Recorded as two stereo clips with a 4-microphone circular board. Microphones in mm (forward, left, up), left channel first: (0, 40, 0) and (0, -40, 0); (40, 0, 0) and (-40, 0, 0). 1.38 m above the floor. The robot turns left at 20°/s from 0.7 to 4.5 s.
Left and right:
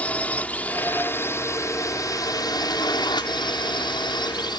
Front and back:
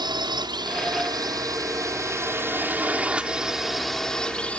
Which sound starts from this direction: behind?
A drone, at 0.0 s.